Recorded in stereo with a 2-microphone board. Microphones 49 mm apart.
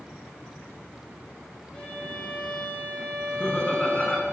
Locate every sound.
1.7 s a violin: 20° left (ahead or behind), 1.6 m
3.2 s laughter: 20° left (ahead or behind), 1.1 m